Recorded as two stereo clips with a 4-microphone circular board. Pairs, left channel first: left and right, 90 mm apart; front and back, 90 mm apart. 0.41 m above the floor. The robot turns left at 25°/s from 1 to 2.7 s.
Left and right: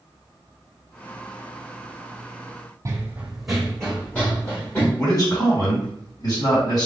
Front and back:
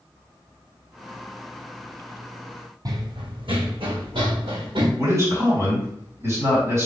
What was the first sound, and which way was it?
Running footsteps, 140° right.